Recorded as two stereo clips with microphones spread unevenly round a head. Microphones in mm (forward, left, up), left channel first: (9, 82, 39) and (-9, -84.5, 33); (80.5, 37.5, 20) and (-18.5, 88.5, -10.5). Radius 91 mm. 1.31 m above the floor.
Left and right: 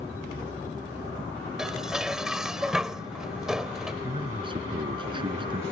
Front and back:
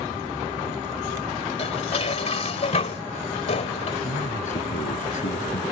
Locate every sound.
1.6 s dishes clattering: 10° right
4.0 s a man speaking: 35° right